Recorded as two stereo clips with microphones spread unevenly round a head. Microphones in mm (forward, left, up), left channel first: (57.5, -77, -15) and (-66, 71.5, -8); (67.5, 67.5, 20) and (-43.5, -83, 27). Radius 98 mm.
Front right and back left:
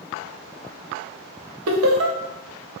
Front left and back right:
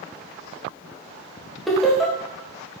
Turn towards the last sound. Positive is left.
turn(degrees=140)